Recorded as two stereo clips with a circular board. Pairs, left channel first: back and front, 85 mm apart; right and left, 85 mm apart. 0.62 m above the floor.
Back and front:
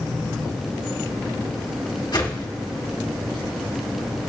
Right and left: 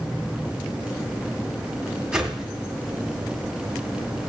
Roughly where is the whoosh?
Behind.